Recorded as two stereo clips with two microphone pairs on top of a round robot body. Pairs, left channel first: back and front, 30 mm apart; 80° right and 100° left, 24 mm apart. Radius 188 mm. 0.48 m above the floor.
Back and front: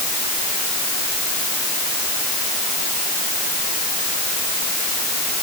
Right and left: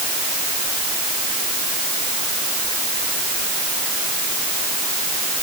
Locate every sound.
Only background noise.